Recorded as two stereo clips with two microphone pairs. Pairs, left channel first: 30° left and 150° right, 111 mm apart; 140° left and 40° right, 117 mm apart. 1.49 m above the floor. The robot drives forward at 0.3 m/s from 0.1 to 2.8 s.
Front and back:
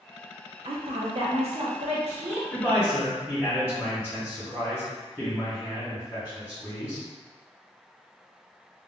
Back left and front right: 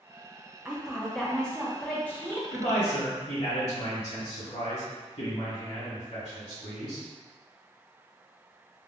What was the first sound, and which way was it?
A woman speaking, 120° right.